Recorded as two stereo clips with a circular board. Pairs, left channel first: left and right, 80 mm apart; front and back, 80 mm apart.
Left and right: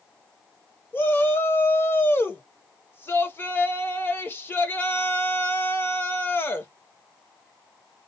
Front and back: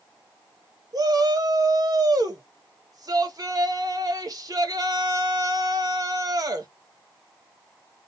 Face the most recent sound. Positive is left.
turn(degrees=150)